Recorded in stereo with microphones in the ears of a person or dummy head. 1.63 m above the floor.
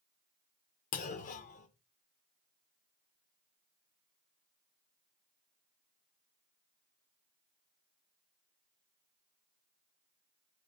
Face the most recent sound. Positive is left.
turn(degrees=50)  # may be behind; listen again after turning